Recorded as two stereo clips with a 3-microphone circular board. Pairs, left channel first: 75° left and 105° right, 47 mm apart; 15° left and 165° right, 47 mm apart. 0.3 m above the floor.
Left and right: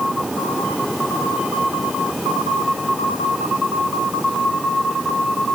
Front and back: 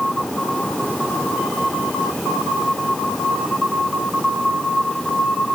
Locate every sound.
Only background noise.